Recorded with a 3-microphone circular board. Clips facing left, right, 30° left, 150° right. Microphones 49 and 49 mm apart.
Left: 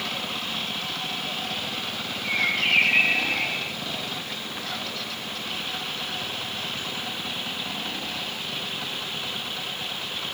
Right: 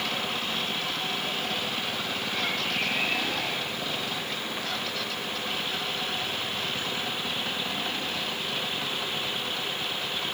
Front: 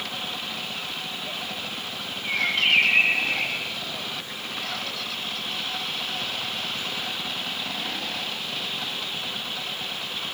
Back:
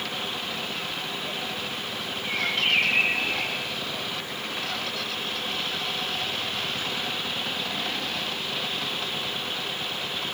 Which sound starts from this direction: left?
A bird, at 2.2 s.